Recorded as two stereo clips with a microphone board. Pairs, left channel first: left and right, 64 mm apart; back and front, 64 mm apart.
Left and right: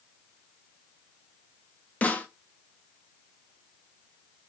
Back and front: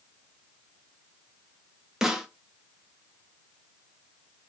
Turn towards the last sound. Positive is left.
turn(degrees=70)